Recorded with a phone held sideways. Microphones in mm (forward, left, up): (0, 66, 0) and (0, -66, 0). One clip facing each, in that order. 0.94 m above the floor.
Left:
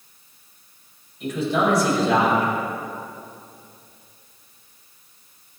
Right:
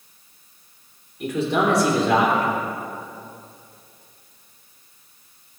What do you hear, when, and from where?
1.2 s a man speaking: 75° right (ahead or behind), 3.5 m